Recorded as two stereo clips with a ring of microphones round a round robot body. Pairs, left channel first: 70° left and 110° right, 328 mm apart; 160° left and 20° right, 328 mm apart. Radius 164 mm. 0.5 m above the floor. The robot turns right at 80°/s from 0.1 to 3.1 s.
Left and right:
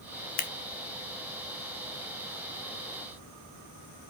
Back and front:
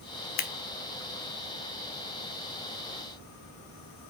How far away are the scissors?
About 1.0 m.